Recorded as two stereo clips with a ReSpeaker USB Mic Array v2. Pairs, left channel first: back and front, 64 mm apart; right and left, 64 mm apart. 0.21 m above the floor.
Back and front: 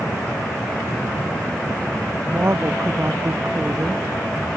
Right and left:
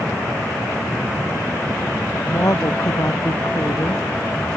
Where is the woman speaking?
50° right.